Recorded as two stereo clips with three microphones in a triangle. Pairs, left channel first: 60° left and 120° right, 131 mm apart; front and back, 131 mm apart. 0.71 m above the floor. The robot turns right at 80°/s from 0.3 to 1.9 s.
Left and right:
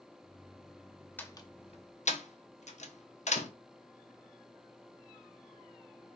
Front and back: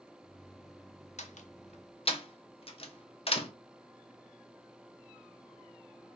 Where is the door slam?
15° right, 0.6 m; by 3.5 s 40° left, 0.6 m.